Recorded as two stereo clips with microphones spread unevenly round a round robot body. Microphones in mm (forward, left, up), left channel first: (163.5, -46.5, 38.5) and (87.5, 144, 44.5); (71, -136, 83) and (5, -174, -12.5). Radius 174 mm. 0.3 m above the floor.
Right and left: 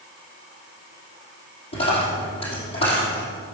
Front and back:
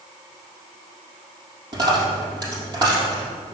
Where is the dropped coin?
125° right, 3.5 m.